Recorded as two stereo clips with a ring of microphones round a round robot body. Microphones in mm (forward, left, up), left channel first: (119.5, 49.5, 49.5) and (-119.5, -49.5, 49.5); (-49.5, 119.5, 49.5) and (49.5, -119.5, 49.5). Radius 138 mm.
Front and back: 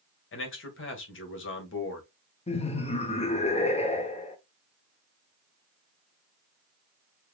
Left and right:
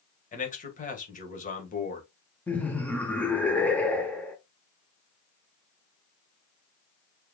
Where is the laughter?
35° left, 1.0 m.